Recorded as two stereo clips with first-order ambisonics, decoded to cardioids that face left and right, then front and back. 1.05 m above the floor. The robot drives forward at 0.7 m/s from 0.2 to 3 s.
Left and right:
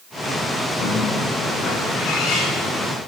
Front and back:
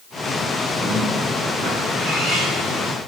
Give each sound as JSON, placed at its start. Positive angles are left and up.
{"t": 0.8, "sound": "a bird", "azimuth_deg": 105, "distance_m": 4.5}